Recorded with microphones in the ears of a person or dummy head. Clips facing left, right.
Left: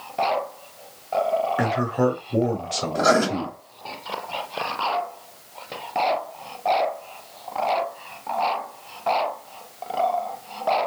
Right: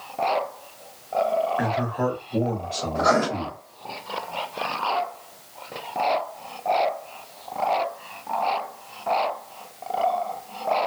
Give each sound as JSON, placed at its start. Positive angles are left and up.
{"t": 1.6, "sound": "a man speaking", "side_deg": 55, "distance_m": 0.7}
{"t": 3.0, "sound": "writing", "side_deg": 40, "distance_m": 1.1}